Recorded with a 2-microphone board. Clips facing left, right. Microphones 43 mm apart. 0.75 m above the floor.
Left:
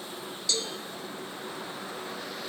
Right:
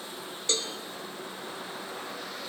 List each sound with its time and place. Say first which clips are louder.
0.5 s a cowbell: right 1 dB; 35° right (ahead or behind), 0.7 m